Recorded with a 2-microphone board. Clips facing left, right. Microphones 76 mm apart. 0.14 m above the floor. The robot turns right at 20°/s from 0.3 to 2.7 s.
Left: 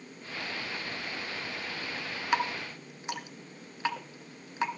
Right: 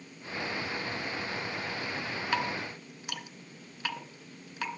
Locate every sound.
2.3 s dripping: 20° left (ahead or behind), 1.7 m